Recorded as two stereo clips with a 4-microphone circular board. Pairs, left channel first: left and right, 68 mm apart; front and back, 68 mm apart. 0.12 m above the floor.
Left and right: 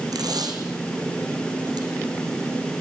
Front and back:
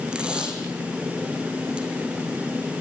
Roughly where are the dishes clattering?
I don't hear dishes clattering.